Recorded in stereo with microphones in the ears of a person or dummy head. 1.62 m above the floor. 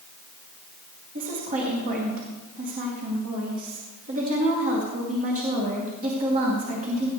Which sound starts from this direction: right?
A woman speaking, at 1.1 s.